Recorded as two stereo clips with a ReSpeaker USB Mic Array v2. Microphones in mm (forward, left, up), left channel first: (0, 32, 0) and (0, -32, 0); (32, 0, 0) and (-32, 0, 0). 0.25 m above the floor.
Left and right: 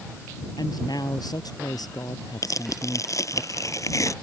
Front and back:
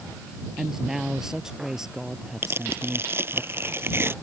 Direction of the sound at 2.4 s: 125° left.